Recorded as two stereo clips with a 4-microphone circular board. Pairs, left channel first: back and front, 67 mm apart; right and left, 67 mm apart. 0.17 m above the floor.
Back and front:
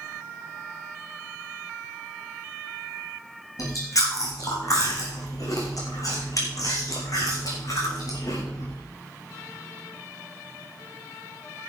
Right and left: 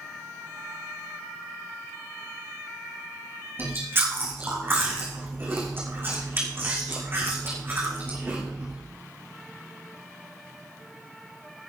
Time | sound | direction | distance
3.6 | chewing | 145° left | 4 m